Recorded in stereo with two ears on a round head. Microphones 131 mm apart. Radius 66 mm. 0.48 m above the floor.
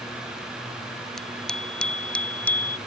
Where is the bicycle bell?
5° left (ahead or behind); by 2.8 s 10° left (ahead or behind).